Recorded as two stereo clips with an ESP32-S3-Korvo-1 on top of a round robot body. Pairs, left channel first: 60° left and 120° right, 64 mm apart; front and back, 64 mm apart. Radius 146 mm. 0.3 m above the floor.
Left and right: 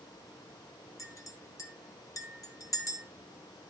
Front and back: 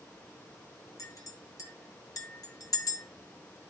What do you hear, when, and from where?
1.0 s a clink: 30° left, 1.7 m